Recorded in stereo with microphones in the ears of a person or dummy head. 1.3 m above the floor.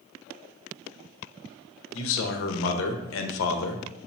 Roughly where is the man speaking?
Left.